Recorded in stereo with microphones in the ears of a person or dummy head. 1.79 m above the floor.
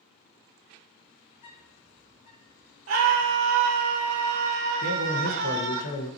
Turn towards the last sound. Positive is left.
turn(degrees=75)  # may be behind; listen again after turning